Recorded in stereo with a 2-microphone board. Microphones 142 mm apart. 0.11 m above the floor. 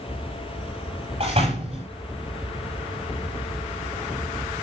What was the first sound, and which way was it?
A door slam, 40° right (ahead or behind).